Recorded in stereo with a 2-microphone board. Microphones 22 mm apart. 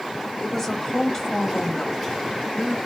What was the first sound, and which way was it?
A woman speaking, 25° left (ahead or behind).